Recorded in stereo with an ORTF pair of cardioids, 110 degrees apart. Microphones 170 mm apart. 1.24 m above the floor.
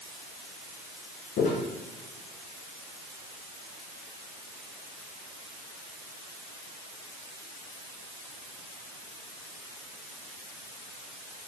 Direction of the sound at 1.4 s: 65° left.